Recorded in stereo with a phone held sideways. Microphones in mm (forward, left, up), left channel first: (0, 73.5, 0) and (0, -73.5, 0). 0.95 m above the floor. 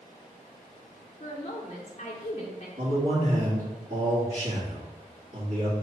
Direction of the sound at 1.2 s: 45° left (ahead or behind).